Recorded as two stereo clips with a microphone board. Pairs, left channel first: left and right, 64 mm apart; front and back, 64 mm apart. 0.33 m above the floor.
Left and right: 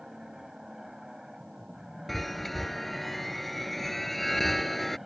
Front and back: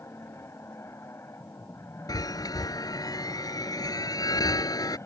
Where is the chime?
Straight ahead.